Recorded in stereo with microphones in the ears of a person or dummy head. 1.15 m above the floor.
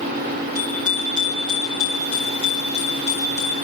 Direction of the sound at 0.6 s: 20° right (ahead or behind).